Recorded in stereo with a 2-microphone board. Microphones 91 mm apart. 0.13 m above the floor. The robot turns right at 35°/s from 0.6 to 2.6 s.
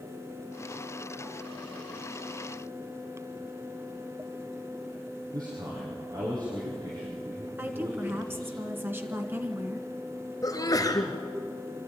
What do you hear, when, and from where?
5.3 s a man speaking: 45° right (ahead or behind), 5 m
7.6 s a woman speaking: 25° right (ahead or behind), 1.8 m
10.4 s a sneeze: 45° left (ahead or behind), 2.5 m